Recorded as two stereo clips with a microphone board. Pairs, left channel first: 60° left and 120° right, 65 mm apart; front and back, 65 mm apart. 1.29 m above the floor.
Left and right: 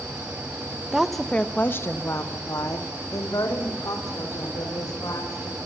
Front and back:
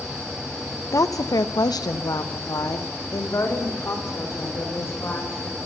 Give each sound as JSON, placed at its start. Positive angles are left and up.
{"t": 0.9, "sound": "a woman speaking", "azimuth_deg": -40, "distance_m": 1.2}